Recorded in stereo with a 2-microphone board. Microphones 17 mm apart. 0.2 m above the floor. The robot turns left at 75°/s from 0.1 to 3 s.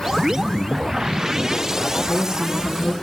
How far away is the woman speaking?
About 1.6 m.